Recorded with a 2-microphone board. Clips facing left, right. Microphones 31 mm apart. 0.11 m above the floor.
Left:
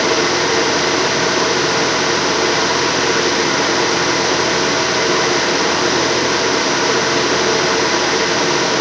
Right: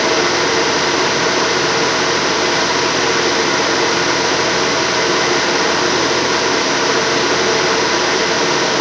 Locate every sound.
Only background noise.